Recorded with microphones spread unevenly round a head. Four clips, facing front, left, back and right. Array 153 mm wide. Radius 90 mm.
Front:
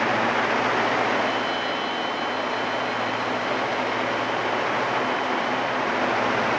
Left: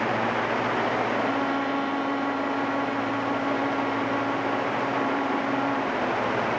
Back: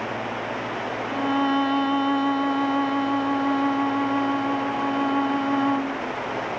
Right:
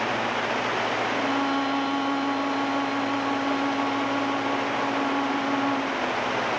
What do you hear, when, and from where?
1.1 s a violin: 165° right